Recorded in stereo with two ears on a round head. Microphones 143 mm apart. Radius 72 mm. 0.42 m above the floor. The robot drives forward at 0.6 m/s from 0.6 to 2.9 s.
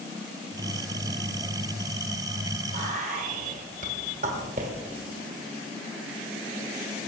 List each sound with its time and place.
2.7 s whispering: 50° right (ahead or behind), 1.6 m